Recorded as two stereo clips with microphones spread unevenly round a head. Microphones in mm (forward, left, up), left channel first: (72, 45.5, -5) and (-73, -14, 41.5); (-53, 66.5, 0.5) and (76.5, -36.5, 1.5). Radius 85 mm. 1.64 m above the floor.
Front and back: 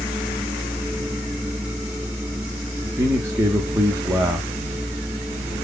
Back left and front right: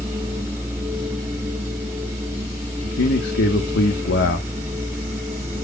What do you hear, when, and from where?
0.0 s a machine running: 110° right, 1.4 m
2.8 s a man speaking: 135° left, 1.3 m